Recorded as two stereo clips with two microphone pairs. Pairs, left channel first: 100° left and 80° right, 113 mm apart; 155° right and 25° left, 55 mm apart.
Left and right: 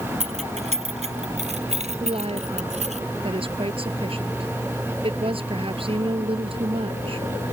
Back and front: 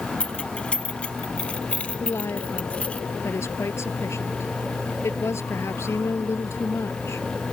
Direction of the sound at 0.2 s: 85° right.